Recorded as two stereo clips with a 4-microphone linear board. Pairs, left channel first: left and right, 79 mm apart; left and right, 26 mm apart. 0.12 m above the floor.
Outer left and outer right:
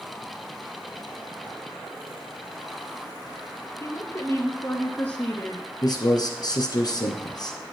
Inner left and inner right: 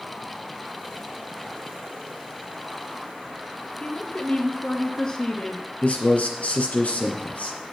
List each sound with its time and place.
3.8 s a woman speaking: 35° left (ahead or behind), 1.3 m; by 5.6 s 10° left (ahead or behind), 1.4 m
5.8 s a man speaking: 55° left (ahead or behind), 2.5 m